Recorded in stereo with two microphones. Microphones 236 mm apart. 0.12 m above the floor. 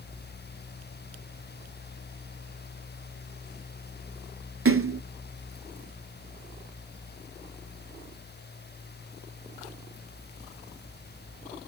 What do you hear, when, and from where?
4.7 s a splash: 65° right (ahead or behind), 0.5 m